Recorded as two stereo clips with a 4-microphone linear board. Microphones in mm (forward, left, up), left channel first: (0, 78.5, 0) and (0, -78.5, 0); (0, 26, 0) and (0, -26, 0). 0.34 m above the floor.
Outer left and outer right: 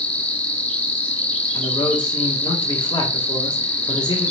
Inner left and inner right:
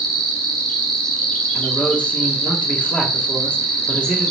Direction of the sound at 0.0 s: 10° left (ahead or behind).